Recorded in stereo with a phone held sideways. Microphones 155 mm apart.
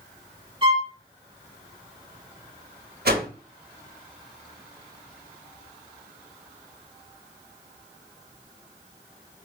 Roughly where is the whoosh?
Right.